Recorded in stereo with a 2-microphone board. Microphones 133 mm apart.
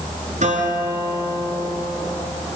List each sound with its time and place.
0.4 s a guitar: 70° right (ahead or behind), 5.5 m